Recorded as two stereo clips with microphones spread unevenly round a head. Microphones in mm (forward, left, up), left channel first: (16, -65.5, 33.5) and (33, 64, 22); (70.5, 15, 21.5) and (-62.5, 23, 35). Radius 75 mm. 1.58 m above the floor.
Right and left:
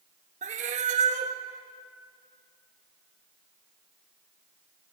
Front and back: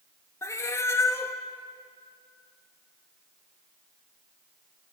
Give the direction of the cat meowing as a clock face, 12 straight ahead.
10 o'clock.